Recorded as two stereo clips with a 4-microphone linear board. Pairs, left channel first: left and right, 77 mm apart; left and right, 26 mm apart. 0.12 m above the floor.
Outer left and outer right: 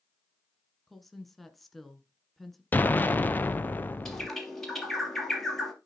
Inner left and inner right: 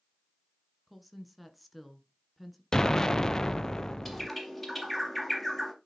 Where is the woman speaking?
Centre (ahead or behind), 1.4 m.